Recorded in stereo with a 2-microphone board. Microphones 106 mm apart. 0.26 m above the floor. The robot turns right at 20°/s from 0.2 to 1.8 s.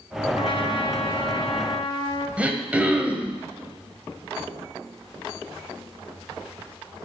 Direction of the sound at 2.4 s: 10° right (ahead or behind).